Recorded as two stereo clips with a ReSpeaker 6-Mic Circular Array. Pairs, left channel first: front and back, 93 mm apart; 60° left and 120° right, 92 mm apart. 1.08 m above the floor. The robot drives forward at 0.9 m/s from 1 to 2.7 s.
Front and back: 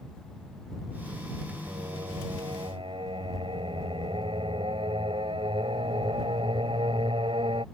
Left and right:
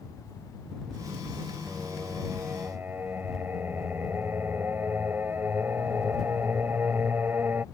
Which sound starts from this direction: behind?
Singing, at 1.7 s.